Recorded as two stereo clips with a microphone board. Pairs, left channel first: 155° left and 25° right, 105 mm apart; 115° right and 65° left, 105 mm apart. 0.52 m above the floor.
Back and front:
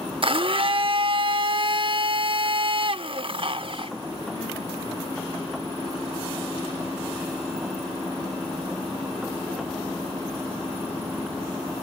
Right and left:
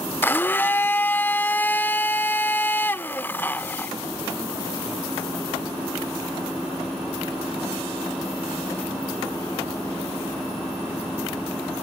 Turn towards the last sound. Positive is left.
turn(degrees=-45)